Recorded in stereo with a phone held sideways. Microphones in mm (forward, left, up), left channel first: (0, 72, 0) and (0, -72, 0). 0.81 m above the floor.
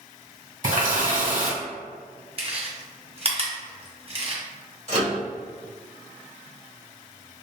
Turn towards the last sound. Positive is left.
turn(degrees=-50)  # may be behind; listen again after turning